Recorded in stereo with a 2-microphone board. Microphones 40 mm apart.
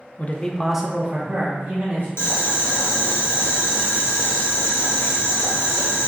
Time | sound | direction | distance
0.2 | a man speaking | 45° left (ahead or behind) | 0.5 m
2.2 | boiling | 80° left | 0.8 m